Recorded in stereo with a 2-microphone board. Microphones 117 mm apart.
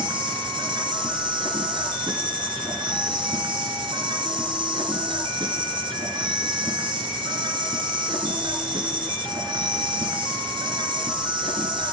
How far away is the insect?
About 1.6 m.